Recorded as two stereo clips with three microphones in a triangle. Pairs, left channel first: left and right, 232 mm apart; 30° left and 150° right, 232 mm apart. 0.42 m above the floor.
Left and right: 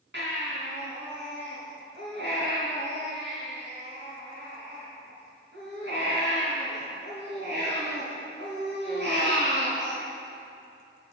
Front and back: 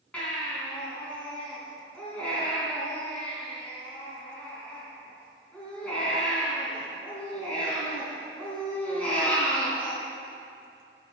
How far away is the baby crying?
About 3.5 m.